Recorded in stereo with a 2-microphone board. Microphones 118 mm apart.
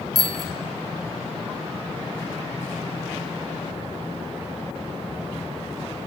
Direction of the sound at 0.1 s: 35° right (ahead or behind).